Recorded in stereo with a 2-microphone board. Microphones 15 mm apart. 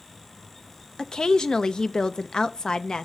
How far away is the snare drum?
I don't hear a snare drum.